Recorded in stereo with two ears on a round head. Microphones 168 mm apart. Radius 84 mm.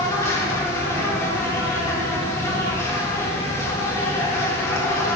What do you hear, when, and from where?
0.0 s an insect: 15° left (ahead or behind), 1.1 m